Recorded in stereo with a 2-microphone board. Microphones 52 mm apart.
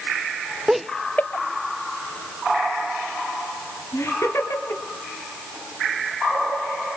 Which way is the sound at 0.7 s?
10° right (ahead or behind).